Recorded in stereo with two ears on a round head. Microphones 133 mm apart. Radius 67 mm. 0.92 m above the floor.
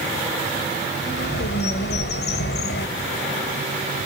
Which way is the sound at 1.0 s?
75° left (ahead or behind).